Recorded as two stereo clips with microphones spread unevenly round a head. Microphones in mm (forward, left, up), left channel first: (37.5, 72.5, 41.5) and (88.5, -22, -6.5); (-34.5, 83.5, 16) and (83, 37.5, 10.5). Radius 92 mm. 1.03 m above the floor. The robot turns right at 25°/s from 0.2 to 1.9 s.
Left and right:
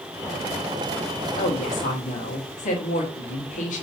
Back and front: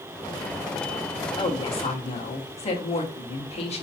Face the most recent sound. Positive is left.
turn(degrees=125)